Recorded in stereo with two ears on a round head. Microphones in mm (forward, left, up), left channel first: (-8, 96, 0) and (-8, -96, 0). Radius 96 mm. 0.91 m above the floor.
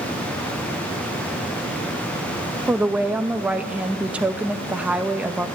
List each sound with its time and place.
2.7 s a woman speaking: 5° right (ahead or behind), 0.8 m